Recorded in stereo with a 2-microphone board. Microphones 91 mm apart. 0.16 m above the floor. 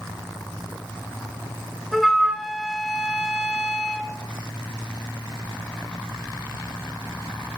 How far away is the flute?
About 0.7 m.